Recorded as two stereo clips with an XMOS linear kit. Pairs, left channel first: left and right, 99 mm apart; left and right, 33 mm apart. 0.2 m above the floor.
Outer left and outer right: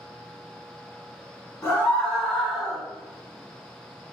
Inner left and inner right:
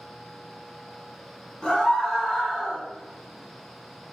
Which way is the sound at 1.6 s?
25° left (ahead or behind).